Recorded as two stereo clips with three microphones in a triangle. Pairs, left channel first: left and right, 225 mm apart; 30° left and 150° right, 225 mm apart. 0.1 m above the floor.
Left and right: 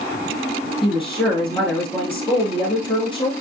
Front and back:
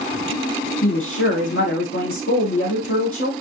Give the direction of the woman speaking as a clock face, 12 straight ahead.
11 o'clock.